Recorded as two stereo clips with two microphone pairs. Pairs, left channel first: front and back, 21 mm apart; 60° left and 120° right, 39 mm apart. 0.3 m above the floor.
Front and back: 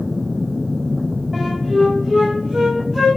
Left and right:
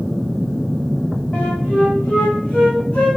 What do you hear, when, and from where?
1.3 s a flute: 120° left, 4.5 m